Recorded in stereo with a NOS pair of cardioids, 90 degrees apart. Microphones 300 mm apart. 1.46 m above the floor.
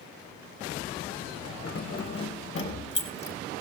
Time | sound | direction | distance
1.6 | keys jangling | 55° left | 4.5 m